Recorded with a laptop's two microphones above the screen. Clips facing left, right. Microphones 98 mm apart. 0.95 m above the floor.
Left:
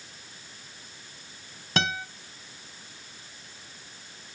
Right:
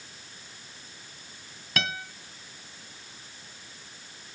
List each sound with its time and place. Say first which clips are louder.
1.8 s a guitar: left 4 dB; 25° left (ahead or behind), 1.1 m